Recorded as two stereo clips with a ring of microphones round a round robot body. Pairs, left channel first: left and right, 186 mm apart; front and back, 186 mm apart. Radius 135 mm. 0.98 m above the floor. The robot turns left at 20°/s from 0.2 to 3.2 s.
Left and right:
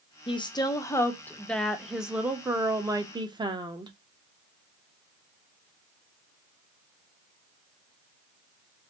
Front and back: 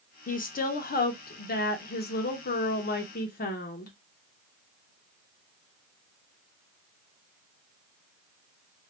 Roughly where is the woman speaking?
Ahead left.